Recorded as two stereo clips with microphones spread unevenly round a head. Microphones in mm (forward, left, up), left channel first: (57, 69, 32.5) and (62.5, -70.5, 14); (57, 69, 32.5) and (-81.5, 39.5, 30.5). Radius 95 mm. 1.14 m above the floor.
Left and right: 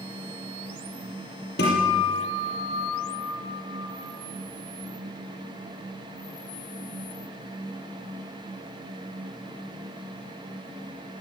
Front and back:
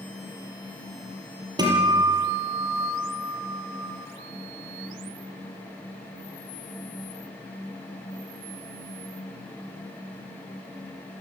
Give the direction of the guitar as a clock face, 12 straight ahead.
8 o'clock.